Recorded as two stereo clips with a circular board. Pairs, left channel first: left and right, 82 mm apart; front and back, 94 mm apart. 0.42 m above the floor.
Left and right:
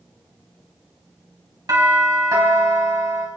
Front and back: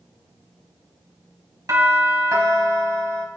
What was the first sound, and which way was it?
A doorbell, 130° right.